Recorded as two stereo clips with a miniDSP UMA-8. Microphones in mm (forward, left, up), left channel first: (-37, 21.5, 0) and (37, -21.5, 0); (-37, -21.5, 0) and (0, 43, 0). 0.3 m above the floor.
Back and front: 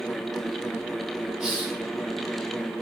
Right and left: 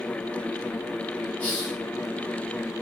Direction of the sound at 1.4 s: 100° right.